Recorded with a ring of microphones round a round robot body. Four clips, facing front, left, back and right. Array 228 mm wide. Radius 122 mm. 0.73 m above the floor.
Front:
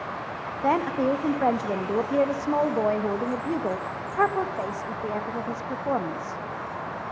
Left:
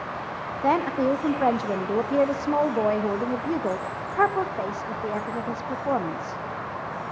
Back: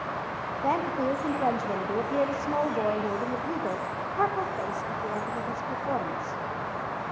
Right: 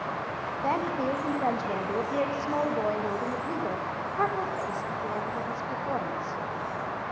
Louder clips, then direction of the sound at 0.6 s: Left 6 dB, front 4 dB; 50° left.